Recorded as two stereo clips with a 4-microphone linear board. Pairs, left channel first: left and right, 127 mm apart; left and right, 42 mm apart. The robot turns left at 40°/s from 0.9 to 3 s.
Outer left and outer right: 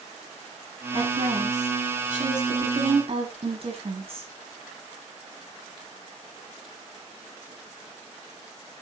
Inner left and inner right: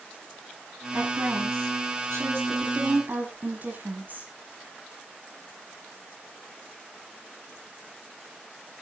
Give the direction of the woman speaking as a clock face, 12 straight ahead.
2 o'clock.